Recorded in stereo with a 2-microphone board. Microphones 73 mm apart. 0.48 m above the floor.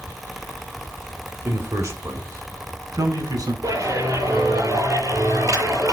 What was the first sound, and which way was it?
A man speaking, 35° right (ahead or behind).